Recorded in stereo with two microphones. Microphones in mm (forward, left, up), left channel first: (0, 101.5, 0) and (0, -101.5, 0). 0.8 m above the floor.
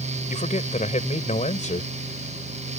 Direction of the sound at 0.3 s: 40° left (ahead or behind).